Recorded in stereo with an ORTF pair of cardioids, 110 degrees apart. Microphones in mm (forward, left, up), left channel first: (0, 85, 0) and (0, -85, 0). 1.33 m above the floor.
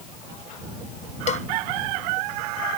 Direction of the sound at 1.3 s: 40° left.